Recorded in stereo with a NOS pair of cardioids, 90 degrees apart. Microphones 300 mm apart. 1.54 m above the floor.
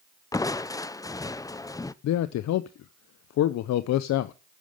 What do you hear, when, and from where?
0.3 s crushing: 10° left, 0.5 m
2.0 s a man speaking: 65° left, 0.7 m